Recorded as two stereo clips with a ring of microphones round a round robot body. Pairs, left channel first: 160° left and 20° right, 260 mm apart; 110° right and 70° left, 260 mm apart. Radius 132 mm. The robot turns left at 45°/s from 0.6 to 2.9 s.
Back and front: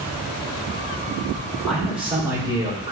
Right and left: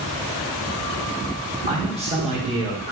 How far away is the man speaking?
About 1.2 m.